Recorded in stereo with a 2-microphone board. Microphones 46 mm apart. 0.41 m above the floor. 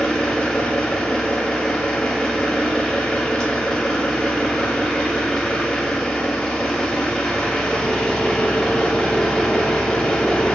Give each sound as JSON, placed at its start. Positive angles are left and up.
{"t": 0.0, "sound": "an engine running", "side_deg": 10, "distance_m": 1.0}